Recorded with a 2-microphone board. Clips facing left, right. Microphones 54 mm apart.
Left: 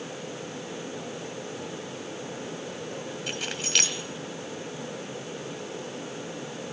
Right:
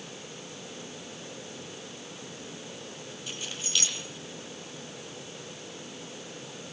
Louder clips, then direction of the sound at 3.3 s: Left 4 dB; 65° left (ahead or behind).